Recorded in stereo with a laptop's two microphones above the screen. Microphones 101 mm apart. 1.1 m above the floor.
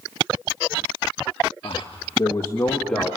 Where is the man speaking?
60° left (ahead or behind), 1.5 m; by 3.2 s 5° left (ahead or behind), 2.5 m.